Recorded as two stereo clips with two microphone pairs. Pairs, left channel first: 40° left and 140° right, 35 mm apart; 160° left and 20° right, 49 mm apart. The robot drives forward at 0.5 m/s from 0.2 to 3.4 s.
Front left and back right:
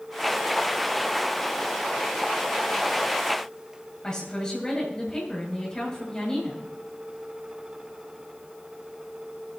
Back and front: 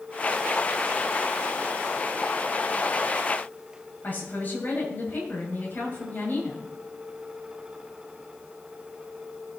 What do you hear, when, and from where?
4.0 s a woman speaking: 115° left, 6.5 m